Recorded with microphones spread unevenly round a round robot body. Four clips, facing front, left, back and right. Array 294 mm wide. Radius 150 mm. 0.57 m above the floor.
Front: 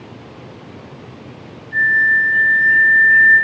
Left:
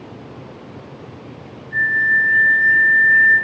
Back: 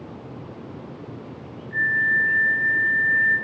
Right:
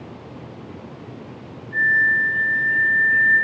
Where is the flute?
145° left, 0.8 m.